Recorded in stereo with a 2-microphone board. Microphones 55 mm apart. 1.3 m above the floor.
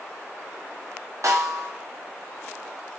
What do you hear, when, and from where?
1.2 s a snare drum: 85° right, 0.5 m